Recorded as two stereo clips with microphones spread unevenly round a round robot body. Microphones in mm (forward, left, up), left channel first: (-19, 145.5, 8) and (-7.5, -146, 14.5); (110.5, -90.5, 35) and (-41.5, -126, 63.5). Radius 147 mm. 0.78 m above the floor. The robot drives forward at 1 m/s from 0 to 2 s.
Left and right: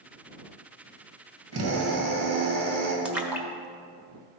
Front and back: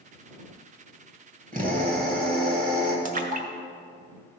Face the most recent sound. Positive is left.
turn(degrees=-175)